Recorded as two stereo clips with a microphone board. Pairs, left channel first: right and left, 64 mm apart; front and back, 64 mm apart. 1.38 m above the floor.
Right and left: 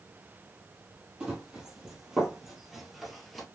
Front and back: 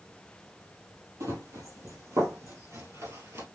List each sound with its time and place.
1.2 s running footsteps: 165° left, 3 m; by 3.5 s straight behind, 2.0 m